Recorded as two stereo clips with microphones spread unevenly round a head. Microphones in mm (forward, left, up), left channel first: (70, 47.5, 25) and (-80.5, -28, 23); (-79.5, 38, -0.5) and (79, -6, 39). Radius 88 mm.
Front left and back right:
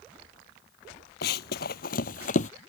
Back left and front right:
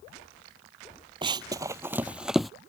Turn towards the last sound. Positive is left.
turn(degrees=65)